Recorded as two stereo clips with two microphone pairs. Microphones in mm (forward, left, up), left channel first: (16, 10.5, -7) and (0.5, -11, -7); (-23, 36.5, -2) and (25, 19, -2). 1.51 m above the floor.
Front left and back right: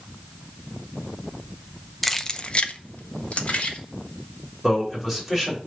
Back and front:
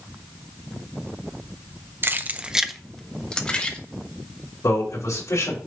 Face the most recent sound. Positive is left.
turn(degrees=150)